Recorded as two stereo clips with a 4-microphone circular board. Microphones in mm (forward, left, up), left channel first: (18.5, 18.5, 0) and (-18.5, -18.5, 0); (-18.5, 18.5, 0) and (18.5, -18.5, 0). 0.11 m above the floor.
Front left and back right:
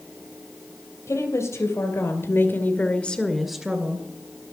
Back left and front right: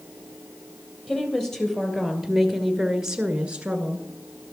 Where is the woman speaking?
55° left, 3 m; by 4.1 s 95° right, 1.6 m.